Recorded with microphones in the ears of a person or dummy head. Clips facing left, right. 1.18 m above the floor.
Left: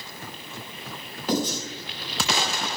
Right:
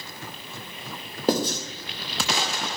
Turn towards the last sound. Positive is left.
turn(degrees=-30)  # may be behind; listen again after turning